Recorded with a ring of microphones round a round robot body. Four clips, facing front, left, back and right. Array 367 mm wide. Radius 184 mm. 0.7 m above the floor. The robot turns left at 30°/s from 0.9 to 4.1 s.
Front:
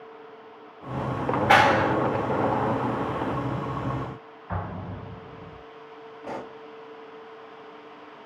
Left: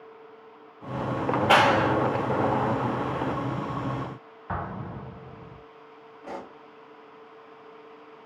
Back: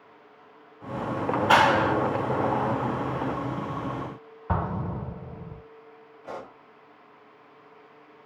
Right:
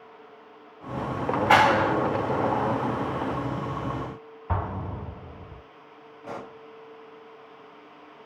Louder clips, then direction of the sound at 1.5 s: Right 1 dB, front 1 dB; 85° left.